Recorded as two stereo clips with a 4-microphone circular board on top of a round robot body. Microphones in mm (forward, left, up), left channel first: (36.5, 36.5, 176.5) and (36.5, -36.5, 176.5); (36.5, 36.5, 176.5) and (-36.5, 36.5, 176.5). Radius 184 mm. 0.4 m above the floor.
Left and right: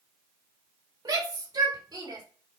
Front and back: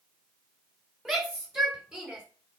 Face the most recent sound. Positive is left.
turn(degrees=-100)